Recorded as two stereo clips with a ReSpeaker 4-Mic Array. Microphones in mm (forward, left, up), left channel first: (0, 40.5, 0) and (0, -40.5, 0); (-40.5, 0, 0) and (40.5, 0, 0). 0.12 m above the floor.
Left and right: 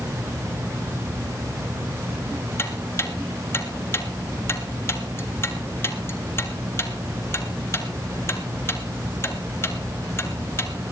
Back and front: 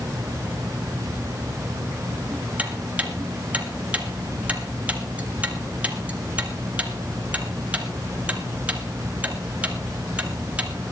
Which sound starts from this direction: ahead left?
Ticking, at 2.6 s.